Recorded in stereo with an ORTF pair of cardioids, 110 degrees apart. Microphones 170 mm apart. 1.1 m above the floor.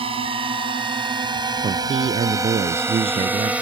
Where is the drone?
35° right; by 3.6 s 5° right.